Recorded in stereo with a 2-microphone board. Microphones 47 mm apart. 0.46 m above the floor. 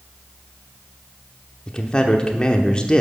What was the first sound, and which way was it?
A man speaking, 20° left (ahead or behind).